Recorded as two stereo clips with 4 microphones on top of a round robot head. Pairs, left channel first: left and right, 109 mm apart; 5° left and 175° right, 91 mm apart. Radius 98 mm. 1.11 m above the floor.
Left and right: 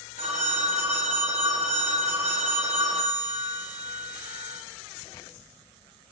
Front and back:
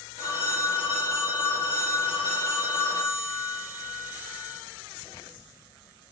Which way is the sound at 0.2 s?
105° right.